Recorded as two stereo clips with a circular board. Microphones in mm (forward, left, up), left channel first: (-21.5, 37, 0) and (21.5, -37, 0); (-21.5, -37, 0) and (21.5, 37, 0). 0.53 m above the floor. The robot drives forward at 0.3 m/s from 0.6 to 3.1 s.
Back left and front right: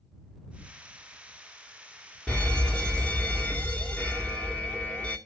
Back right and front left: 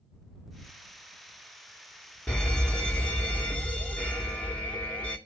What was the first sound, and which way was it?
A fire alarm, straight behind.